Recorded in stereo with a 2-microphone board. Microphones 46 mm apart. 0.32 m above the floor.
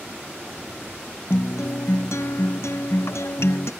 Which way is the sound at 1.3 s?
70° left (ahead or behind).